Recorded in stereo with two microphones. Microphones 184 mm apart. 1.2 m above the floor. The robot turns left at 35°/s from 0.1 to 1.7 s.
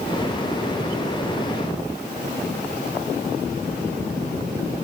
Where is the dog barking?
No dog barking in this recording.